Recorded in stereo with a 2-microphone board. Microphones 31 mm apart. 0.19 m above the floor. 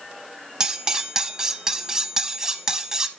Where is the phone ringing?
I don't hear a phone ringing.